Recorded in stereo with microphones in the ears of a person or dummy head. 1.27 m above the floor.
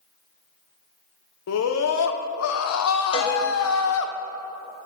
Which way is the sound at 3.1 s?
30° left (ahead or behind).